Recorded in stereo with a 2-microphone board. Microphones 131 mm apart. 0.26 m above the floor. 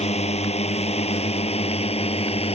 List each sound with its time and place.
0.0 s a drone: 55° left (ahead or behind); by 2.5 s 50° left (ahead or behind)